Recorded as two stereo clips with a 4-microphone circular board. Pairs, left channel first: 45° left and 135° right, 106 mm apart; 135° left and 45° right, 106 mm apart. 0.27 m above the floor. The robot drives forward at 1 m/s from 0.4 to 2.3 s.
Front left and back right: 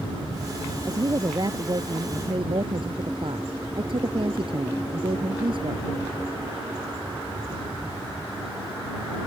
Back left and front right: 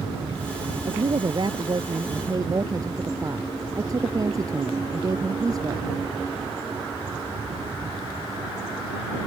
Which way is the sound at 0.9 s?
80° right.